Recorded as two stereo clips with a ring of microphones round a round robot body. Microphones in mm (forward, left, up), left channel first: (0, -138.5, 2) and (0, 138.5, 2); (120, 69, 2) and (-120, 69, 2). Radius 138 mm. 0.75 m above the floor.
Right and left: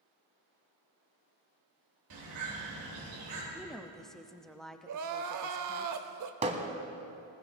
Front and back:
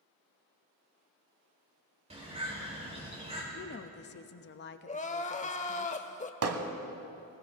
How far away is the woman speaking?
About 0.7 m.